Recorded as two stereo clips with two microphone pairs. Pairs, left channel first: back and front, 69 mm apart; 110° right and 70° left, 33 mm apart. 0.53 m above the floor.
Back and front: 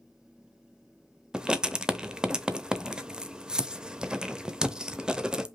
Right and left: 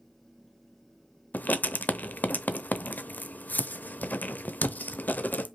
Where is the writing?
80° right, 0.7 m.